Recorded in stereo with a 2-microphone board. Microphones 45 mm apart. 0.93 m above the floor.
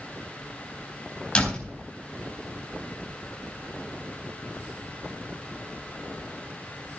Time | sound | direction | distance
1.4 | a door slam | 20° left (ahead or behind) | 4 m